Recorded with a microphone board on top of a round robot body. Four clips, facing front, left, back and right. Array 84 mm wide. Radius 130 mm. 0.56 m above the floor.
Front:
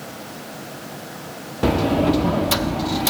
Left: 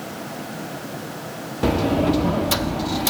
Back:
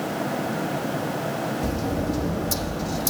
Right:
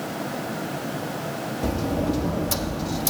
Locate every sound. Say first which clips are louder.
1.6 s a sliding door: left 7 dB, front 8 dB; 30° left, 1.4 m